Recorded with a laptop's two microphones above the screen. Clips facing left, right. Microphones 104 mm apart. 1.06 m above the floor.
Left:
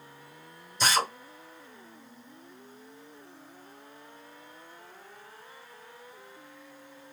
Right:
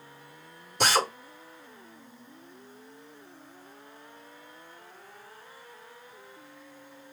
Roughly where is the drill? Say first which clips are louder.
Right 2 dB; right.